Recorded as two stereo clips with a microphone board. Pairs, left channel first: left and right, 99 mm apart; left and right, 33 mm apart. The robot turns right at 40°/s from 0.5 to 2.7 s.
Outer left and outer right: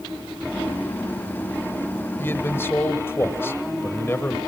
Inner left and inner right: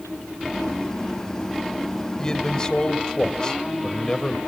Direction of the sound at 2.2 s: 25° left (ahead or behind).